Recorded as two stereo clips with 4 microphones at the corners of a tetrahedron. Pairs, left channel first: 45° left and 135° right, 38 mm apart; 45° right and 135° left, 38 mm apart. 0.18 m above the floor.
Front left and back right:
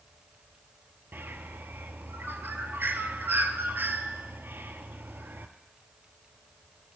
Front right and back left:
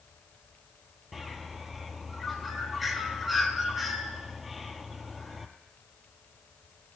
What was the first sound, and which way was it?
A bird, 140° right.